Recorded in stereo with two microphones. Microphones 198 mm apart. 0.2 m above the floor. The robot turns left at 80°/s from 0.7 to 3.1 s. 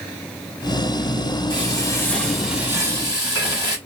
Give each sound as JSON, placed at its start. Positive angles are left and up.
{"t": 1.5, "sound": "frying", "side_deg": 25, "distance_m": 1.1}